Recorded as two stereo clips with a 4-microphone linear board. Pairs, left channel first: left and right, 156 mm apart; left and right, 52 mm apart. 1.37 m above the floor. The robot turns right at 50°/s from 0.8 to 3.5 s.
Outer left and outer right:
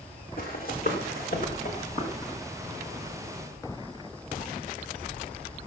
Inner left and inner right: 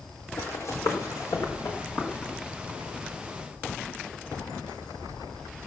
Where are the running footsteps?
75° left (ahead or behind), 5.5 m; by 2.3 s 20° left (ahead or behind), 7 m.